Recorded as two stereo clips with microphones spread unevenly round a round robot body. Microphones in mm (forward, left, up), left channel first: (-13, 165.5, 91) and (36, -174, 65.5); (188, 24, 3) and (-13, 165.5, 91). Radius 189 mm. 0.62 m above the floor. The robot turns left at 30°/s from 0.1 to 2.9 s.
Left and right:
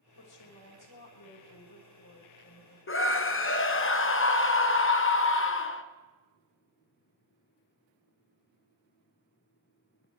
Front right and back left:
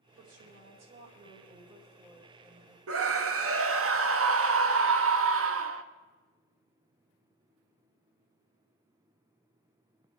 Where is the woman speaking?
120° left, 3 m; by 2.8 s 40° left, 3 m.